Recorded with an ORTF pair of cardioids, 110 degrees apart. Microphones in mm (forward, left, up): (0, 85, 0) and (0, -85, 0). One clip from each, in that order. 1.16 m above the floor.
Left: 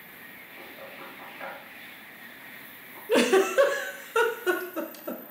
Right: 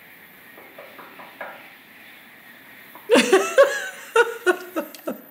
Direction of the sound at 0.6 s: 50° right.